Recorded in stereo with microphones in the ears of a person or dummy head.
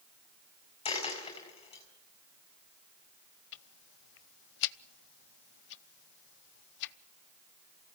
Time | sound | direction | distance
0.8 | a dropped coin | 30° left (ahead or behind) | 5.5 m
3.5 | ticking | 65° left (ahead or behind) | 0.9 m